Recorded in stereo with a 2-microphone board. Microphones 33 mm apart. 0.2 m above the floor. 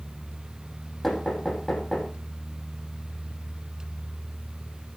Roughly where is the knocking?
Centre.